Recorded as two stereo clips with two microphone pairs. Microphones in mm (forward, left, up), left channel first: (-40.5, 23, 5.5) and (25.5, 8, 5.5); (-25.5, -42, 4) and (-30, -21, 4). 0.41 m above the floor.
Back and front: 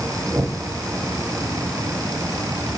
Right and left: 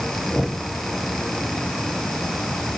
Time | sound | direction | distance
0.3 | knocking | 80° right | 8 m